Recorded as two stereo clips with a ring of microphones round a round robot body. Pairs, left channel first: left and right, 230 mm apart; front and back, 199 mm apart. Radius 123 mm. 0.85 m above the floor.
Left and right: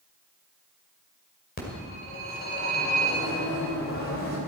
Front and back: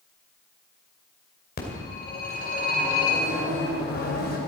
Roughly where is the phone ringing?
Ahead left.